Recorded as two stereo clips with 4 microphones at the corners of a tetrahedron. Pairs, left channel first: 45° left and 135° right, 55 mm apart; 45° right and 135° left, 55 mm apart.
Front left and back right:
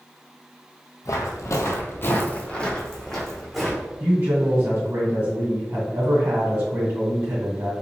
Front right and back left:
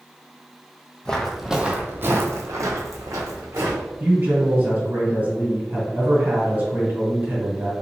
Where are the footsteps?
30° left, 0.6 m; by 3.9 s 135° left, 1.3 m.